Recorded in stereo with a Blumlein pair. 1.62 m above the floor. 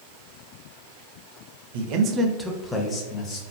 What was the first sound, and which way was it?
A man speaking, 55° right.